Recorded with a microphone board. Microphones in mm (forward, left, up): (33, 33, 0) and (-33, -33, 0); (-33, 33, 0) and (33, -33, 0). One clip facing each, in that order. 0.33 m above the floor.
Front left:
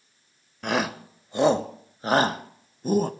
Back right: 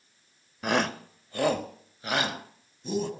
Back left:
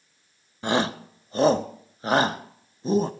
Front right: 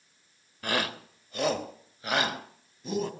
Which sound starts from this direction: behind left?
A shout, at 0.6 s.